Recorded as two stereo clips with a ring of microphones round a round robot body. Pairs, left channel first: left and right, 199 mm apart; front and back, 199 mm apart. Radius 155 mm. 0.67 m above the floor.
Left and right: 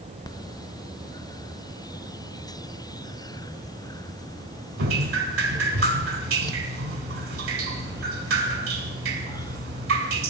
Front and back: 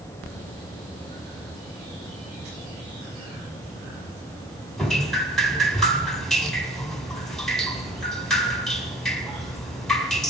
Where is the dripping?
90° right, 2 m.